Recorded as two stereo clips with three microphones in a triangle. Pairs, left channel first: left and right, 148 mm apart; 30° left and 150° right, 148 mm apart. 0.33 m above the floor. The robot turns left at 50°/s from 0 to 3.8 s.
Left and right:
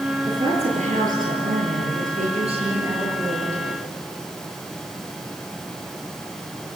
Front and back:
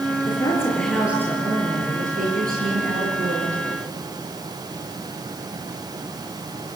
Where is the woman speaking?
25° right, 7.5 m; by 3.6 s 165° left, 7.5 m.